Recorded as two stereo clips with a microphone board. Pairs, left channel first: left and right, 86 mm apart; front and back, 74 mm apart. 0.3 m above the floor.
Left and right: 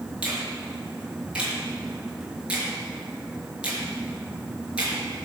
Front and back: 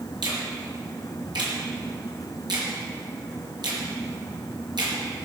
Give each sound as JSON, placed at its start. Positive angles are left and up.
{"t": 0.2, "sound": "a finger snap", "azimuth_deg": -165, "distance_m": 5.5}